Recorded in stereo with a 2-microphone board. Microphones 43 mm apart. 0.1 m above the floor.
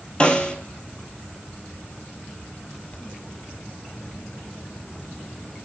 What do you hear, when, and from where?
0.2 s a snare drum: 20° left (ahead or behind), 0.9 m